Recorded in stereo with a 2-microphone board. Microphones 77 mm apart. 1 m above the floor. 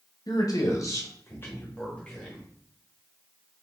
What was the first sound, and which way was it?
A man speaking, 55° left (ahead or behind).